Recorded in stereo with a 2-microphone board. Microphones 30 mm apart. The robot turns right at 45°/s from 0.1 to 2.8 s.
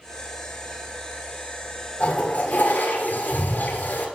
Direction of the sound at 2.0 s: 50° left.